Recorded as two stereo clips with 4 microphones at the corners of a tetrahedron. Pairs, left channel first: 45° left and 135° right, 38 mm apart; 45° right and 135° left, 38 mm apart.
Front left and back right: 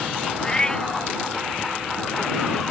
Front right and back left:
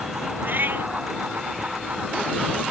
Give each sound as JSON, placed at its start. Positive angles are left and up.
{"t": 0.4, "sound": "a cat meowing", "azimuth_deg": 115}